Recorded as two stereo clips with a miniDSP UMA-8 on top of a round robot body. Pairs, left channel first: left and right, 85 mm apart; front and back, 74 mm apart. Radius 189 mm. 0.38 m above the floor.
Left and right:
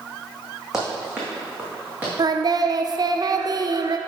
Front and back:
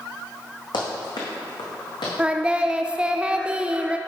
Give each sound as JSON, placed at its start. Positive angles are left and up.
{"t": 0.7, "sound": "running footsteps", "azimuth_deg": -5, "distance_m": 1.6}
{"t": 2.2, "sound": "singing", "azimuth_deg": -105, "distance_m": 0.7}